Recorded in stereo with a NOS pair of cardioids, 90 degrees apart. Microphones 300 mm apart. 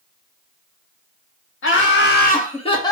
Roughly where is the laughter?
Ahead left.